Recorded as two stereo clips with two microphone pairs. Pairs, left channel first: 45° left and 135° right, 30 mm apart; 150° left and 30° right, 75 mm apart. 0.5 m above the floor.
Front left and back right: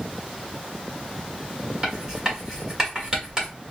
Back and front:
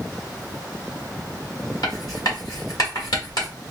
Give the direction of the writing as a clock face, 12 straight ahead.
7 o'clock.